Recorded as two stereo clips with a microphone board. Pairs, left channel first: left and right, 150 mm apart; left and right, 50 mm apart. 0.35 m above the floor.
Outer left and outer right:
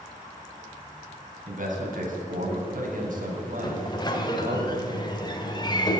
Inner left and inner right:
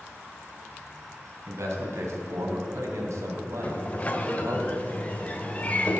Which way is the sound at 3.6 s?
30° left (ahead or behind).